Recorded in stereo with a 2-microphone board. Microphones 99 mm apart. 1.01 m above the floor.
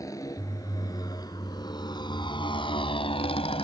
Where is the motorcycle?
35° left (ahead or behind); by 3.6 s 85° left.